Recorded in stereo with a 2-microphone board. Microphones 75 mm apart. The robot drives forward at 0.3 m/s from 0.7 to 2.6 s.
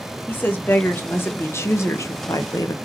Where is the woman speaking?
25° left (ahead or behind), 1.0 m; by 2.8 s 55° left (ahead or behind), 0.6 m.